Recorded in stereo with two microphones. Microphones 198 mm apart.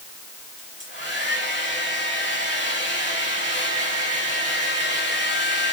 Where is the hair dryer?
65° left (ahead or behind), 6 m.